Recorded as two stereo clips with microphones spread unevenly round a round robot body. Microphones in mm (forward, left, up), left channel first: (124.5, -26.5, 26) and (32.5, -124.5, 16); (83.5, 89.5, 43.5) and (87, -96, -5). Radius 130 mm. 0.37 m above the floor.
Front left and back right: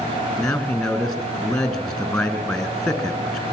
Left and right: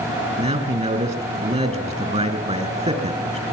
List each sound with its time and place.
0.4 s a man speaking: 35° right, 4.5 m